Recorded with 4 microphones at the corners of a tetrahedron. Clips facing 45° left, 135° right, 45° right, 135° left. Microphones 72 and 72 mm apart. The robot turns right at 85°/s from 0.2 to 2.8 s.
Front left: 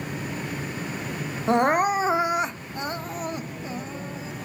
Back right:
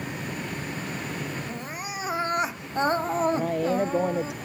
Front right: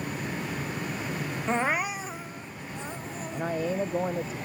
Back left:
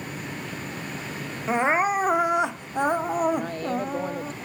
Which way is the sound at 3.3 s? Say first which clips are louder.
Back right 9 dB, back left 2 dB; 125° right.